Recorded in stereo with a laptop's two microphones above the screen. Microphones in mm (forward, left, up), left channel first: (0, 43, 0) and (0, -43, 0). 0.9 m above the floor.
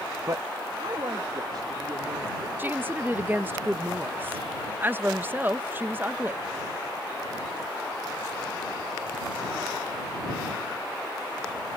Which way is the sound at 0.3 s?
45° right (ahead or behind).